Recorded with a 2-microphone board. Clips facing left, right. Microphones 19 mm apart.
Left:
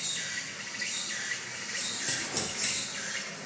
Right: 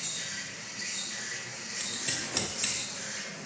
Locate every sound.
0.0 s an insect: 55° left (ahead or behind), 1.6 m
1.8 s scissors: 30° right (ahead or behind), 1.3 m